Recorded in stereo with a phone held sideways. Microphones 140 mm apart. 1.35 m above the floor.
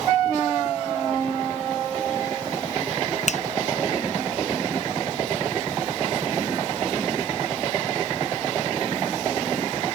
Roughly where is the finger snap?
Left.